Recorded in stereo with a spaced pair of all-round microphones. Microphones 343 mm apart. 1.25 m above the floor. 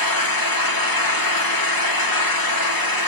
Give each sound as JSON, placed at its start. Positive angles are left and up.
{"t": 0.0, "sound": "an engine running", "side_deg": 70, "distance_m": 2.0}